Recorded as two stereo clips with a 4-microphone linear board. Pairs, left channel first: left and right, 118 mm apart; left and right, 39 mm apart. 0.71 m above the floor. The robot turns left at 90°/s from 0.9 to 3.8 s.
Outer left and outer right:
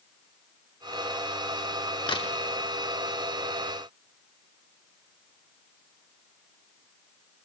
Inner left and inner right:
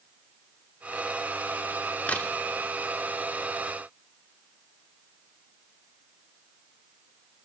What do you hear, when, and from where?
2.1 s a crack: 40° left (ahead or behind), 1.1 m; by 2.3 s 65° left (ahead or behind), 1.1 m